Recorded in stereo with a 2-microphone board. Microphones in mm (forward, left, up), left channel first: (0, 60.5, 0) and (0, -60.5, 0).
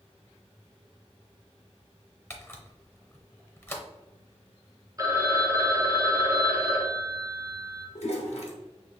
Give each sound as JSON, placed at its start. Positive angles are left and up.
{"t": 2.3, "sound": "a camera shutter", "side_deg": 20, "distance_m": 0.8}
{"t": 5.0, "sound": "a phone ringing", "side_deg": -30, "distance_m": 0.9}
{"t": 8.0, "sound": "a toilet flushing", "side_deg": 65, "distance_m": 1.0}